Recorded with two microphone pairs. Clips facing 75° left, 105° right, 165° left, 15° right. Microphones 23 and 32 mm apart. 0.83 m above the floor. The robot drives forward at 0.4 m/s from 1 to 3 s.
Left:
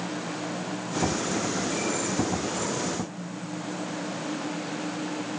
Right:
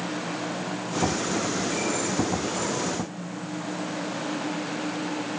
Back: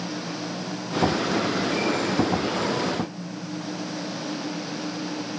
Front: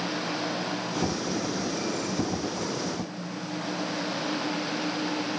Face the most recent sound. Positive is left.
No sound to turn to.